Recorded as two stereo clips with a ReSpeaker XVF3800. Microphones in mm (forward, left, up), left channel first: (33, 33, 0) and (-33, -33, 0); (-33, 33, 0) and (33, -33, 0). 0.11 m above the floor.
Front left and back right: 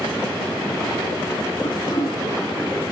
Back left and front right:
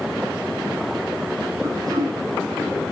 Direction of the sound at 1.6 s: Straight ahead.